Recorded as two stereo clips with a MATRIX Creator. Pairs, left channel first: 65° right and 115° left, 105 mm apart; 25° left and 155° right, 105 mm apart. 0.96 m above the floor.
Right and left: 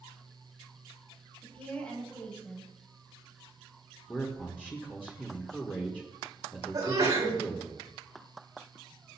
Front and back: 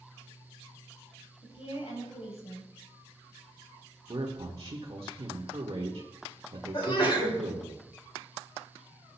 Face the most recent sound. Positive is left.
turn(degrees=60)